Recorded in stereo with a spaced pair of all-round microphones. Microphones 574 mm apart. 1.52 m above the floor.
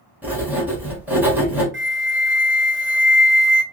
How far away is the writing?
About 1.9 m.